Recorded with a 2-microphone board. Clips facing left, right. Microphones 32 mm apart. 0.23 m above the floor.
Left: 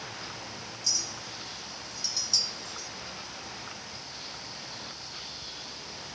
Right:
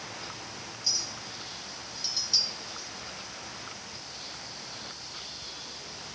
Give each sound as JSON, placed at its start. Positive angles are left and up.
{"t": 0.8, "sound": "a clink", "side_deg": -30, "distance_m": 0.9}